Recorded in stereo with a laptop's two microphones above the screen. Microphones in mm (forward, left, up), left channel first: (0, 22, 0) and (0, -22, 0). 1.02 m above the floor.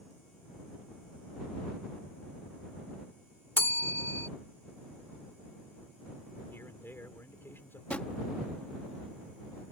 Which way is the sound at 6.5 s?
55° left (ahead or behind).